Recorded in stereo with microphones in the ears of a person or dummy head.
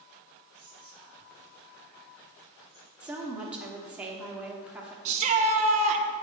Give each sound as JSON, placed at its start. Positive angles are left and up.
{"t": 0.5, "sound": "whispering", "side_deg": 5, "distance_m": 2.0}
{"t": 3.0, "sound": "a woman speaking", "side_deg": -10, "distance_m": 1.1}
{"t": 5.0, "sound": "a shout", "side_deg": -40, "distance_m": 0.8}